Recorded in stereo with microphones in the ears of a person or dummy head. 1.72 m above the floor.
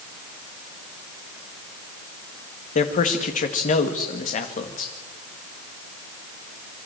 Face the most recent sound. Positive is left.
turn(degrees=40)  # may be behind; listen again after turning